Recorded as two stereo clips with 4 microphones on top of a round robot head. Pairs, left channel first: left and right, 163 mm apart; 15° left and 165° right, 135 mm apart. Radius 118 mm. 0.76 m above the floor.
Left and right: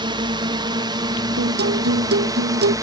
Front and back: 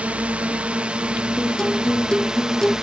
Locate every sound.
0.0 s a drone: 95° right; by 2.9 s 90° right
1.4 s a guitar: 75° right